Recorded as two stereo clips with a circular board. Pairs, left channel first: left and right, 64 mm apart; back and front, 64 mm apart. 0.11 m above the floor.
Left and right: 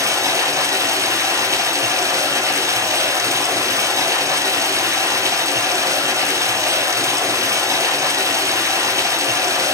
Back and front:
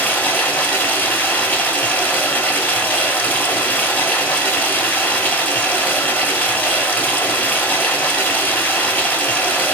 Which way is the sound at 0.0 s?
120° right.